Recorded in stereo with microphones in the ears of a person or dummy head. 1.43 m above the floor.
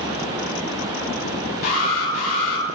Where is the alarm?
45° left (ahead or behind), 7 m.